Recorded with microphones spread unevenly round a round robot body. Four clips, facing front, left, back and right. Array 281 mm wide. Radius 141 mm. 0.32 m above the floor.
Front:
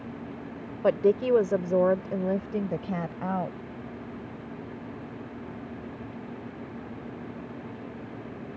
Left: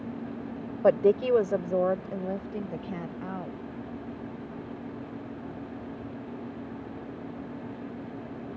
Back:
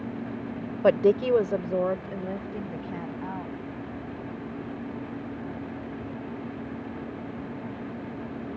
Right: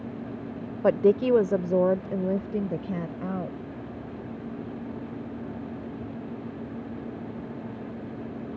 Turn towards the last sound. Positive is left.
turn(degrees=-40)